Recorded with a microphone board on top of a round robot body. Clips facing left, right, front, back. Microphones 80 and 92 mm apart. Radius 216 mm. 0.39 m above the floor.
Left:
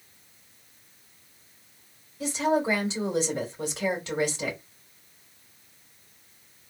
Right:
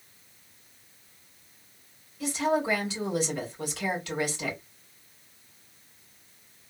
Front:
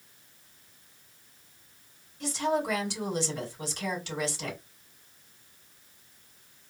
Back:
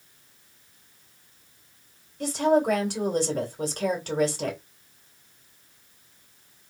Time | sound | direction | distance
2.2 | a woman speaking | 150° left | 2.5 m